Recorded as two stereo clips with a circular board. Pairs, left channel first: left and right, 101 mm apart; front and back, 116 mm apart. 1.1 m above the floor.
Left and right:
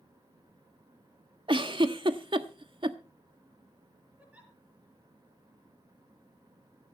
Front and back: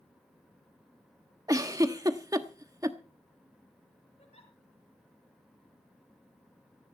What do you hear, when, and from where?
1.5 s a giggle: 120° right, 1.1 m
4.2 s a giggle: 15° right, 5 m